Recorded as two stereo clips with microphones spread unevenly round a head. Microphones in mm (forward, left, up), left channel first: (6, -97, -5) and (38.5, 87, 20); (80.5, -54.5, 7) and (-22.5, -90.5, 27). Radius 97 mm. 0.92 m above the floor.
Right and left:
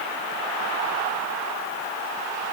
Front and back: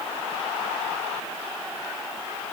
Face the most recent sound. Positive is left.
No sound to turn to.